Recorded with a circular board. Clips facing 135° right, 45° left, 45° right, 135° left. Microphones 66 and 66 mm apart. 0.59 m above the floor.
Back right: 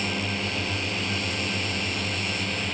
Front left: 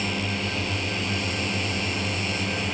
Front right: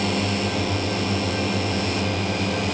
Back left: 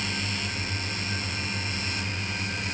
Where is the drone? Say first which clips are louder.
Front left 1 dB, front right 9 dB; 45° right; by 2.7 s 35° right.